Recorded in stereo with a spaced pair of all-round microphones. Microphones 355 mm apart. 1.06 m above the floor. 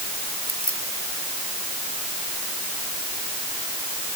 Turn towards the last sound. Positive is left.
turn(degrees=50)  # may be behind; listen again after turning